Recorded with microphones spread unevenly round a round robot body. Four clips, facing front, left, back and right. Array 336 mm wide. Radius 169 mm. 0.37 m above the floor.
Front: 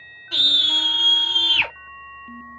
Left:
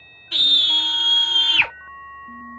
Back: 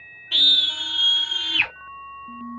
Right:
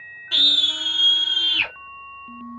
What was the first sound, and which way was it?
A scream, 45° right.